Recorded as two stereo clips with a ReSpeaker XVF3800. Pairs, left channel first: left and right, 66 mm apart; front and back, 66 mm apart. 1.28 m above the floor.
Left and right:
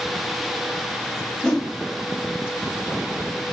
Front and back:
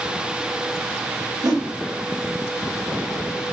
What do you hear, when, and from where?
1.4 s a whoosh: 175° left, 1.3 m